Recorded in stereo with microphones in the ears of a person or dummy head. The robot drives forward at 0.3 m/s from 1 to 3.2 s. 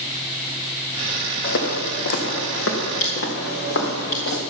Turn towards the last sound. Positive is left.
turn(degrees=70)  # may be behind; listen again after turning